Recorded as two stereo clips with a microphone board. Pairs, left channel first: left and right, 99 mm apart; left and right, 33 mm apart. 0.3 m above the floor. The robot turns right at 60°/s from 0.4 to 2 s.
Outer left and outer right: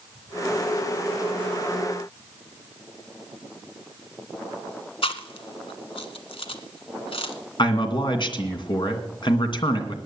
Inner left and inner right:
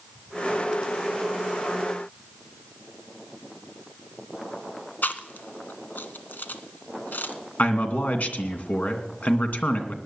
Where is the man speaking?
55° left (ahead or behind), 2.5 m.